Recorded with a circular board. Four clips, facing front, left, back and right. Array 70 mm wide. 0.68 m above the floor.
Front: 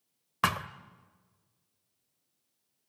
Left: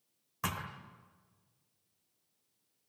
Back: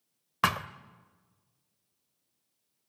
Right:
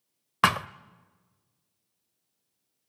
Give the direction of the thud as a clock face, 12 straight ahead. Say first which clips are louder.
Right 15 dB, back 1 dB; 3 o'clock.